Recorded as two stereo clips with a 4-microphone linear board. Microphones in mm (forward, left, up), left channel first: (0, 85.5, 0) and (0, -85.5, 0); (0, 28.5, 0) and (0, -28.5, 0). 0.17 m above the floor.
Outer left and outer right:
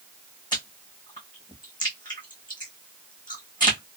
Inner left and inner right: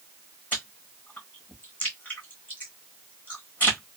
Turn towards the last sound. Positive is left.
turn(degrees=25)  # may be behind; listen again after turning